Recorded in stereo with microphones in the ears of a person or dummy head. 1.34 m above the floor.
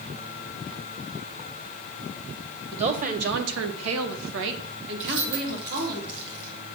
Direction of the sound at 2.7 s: 25° right (ahead or behind).